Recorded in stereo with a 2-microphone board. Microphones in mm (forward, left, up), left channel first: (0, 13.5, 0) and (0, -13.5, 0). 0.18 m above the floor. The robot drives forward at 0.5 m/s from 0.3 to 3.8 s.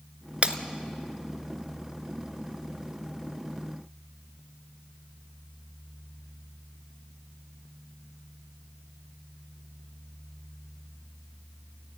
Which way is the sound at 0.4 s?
45° right (ahead or behind).